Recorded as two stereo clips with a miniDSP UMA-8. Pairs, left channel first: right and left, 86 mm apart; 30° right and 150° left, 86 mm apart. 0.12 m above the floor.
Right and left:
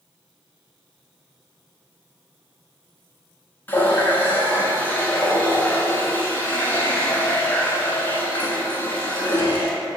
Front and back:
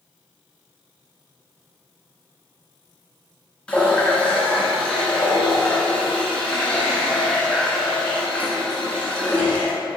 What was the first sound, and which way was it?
A running tap, 85° right.